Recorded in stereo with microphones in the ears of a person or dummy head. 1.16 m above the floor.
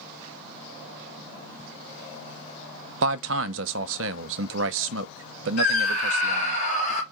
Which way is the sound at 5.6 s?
40° left (ahead or behind).